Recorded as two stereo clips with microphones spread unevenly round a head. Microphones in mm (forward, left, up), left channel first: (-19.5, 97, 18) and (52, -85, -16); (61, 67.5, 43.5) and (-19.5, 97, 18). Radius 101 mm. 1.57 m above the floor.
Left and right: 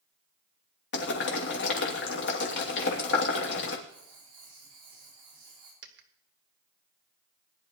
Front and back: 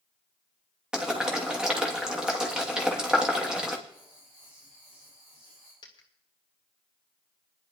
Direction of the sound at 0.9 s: 80° left.